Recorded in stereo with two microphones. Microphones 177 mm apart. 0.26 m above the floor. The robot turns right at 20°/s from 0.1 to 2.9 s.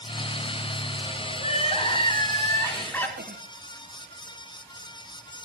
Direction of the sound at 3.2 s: 55° right (ahead or behind).